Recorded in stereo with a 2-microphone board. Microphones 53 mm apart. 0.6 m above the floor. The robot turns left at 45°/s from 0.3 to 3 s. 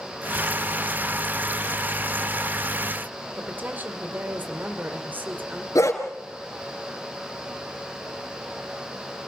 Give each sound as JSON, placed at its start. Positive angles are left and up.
{"t": 3.4, "sound": "a woman speaking", "side_deg": -35, "distance_m": 2.5}
{"t": 5.8, "sound": "a dog barking", "side_deg": 80, "distance_m": 3.5}